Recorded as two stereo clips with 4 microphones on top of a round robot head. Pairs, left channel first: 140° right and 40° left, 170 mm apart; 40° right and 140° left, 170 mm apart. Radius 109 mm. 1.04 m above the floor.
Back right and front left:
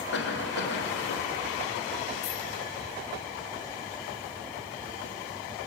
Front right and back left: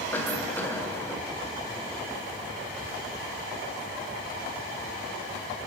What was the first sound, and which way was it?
A cough, 120° right.